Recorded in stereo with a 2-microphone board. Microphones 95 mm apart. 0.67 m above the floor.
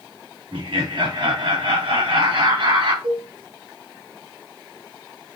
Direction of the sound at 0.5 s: 65° right (ahead or behind).